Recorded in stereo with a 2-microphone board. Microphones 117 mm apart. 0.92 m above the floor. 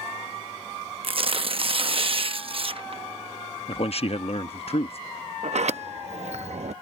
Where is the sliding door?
70° right (ahead or behind).